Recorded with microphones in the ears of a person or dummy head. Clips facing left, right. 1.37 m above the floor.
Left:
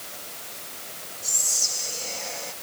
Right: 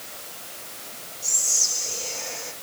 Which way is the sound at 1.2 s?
65° right (ahead or behind).